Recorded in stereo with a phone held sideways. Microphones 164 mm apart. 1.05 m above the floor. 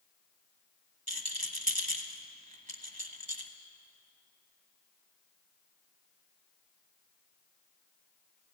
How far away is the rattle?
About 1.3 m.